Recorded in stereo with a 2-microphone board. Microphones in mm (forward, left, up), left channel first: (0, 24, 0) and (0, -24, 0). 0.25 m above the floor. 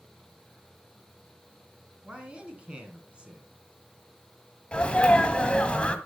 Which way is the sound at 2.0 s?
25° right (ahead or behind).